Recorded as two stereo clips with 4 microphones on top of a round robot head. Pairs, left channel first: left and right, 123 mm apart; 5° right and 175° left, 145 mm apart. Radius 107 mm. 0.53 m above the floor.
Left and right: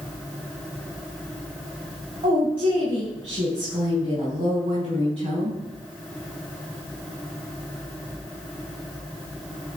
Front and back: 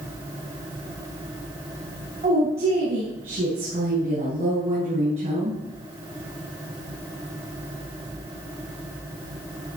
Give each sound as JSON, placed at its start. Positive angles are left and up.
{"t": 2.2, "sound": "a woman speaking", "azimuth_deg": -135, "distance_m": 5.5}